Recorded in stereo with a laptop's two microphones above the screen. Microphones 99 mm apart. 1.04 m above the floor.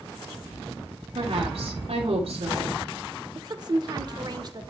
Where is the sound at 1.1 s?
75° right (ahead or behind), 2 m.